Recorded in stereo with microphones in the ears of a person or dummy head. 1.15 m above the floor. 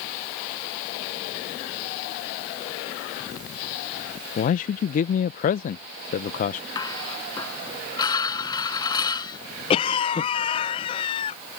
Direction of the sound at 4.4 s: 40° left (ahead or behind).